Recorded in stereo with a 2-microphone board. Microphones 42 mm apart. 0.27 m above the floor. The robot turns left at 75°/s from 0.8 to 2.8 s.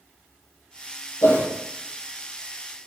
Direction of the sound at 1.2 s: 80° left.